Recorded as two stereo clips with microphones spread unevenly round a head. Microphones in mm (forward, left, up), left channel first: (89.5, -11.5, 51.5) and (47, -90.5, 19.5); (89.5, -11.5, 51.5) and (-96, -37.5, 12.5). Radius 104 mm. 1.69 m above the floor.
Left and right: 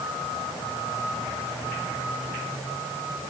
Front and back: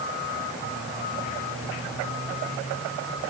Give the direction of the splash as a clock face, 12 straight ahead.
No splash in this recording.